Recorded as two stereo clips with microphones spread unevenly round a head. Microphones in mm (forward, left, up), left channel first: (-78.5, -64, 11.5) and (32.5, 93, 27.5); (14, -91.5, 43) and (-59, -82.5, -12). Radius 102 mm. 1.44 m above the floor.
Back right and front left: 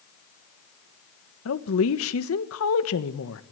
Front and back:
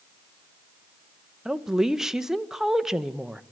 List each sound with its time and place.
1.4 s a woman speaking: 105° right, 1.4 m